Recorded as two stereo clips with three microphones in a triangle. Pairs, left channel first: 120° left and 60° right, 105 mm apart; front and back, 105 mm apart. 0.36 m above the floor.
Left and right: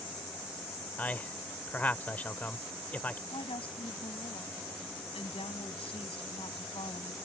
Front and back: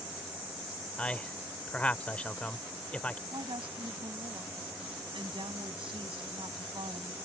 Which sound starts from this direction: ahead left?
A man speaking, at 1.0 s.